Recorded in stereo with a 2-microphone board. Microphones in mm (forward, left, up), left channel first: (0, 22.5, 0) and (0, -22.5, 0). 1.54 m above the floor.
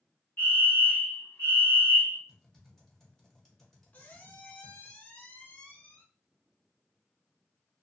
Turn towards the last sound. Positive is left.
turn(degrees=30)  # may be behind; listen again after turning